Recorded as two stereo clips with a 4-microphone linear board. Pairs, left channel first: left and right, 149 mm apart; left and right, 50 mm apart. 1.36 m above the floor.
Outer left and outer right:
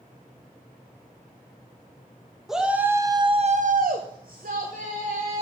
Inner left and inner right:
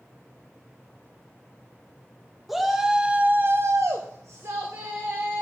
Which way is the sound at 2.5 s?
5° right (ahead or behind).